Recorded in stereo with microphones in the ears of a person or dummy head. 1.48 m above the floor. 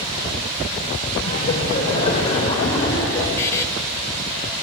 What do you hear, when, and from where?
1.2 s laughter: 30° left (ahead or behind), 6 m; by 3.3 s 15° left (ahead or behind), 5 m
3.4 s a buzzer: 25° left (ahead or behind), 1.3 m